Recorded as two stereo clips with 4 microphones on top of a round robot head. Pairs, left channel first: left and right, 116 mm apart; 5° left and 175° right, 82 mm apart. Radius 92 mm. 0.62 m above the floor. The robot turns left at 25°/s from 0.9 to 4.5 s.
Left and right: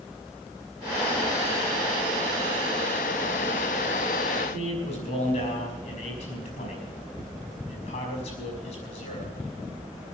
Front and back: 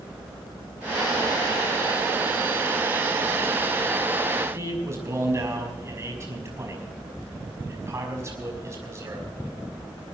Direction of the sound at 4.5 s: 130° left.